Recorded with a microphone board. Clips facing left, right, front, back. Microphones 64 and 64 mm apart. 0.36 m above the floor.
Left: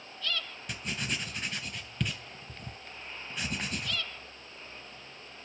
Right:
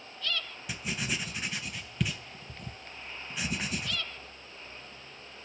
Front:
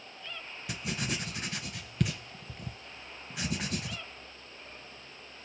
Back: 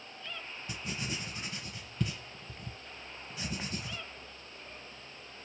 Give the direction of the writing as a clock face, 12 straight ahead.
12 o'clock.